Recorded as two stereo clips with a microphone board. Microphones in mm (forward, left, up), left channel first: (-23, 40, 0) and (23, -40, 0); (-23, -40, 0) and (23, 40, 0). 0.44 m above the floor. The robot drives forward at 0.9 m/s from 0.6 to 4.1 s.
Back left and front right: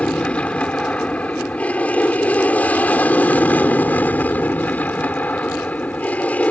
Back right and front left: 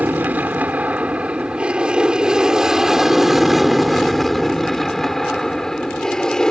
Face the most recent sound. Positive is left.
turn(degrees=170)